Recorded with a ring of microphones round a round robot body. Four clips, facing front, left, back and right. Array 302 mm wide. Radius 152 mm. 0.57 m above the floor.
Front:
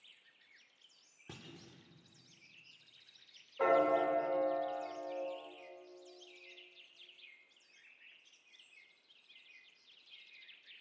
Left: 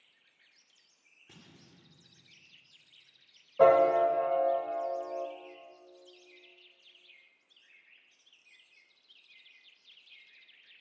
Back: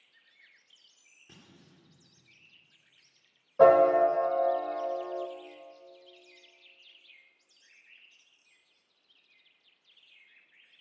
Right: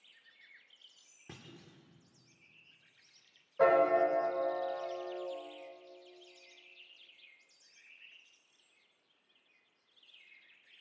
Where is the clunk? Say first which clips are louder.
Right 4 dB, front 4 dB; 50° right, 2 m.